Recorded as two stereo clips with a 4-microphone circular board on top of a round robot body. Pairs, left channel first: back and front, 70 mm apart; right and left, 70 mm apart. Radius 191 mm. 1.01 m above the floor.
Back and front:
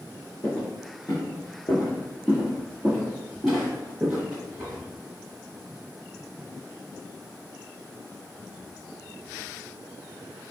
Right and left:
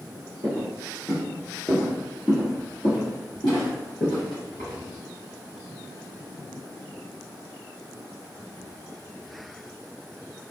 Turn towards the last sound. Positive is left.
turn(degrees=-70)